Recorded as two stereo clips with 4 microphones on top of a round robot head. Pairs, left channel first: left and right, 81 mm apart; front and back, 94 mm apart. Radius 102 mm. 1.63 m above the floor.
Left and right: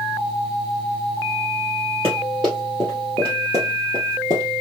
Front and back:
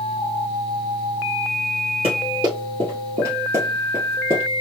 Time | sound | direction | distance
2.0 | running footsteps | 165° right | 1.9 m